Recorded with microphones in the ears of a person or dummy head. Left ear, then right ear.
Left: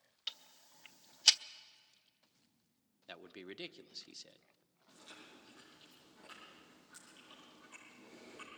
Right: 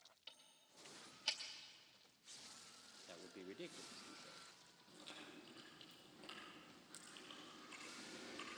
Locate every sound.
0.3 s ticking: 50° left (ahead or behind), 0.7 m
3.1 s a man speaking: 40° left (ahead or behind), 0.8 m
4.9 s chewing: 25° right (ahead or behind), 7.5 m